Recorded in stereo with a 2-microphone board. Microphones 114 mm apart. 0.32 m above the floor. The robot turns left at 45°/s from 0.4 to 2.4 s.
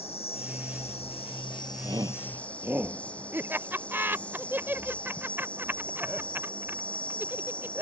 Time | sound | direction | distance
0.0 | an insect | 105° left | ?
1.8 | a shout | 40° right (ahead or behind) | ?
3.3 | laughter | 20° right (ahead or behind) | ?